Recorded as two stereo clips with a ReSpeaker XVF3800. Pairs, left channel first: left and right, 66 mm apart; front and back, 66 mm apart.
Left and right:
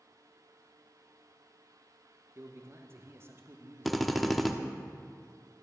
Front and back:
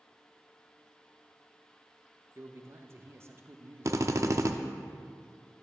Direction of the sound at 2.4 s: 135° right.